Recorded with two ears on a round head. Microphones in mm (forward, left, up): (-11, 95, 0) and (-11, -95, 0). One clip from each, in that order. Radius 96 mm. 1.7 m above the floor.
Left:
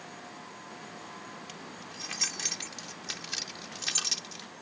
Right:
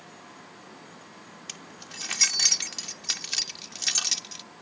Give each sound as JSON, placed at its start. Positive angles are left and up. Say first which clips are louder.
{"t": 1.5, "sound": "keys jangling", "louder": "right 2 dB", "side_deg": -60}